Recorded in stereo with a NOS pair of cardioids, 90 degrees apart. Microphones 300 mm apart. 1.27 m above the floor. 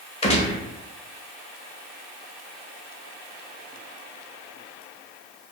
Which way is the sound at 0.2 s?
20° left.